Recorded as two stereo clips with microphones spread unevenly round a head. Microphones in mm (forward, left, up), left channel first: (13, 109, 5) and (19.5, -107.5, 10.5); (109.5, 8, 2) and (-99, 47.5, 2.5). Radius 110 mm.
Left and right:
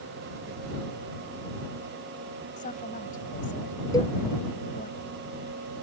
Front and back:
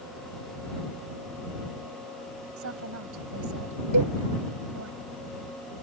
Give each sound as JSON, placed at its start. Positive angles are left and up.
{"t": 2.6, "sound": "a woman speaking", "azimuth_deg": 150}
{"t": 3.9, "sound": "a cowbell", "azimuth_deg": 170}